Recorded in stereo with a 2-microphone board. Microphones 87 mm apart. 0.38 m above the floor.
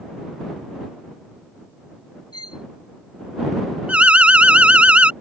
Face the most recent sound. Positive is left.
turn(degrees=-15)  # may be behind; listen again after turning